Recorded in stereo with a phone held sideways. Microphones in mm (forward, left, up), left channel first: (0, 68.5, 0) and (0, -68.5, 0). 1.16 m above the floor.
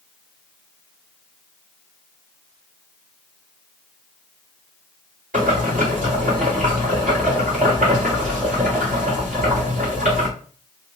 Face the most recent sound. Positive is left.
turn(degrees=-75)  # may be behind; listen again after turning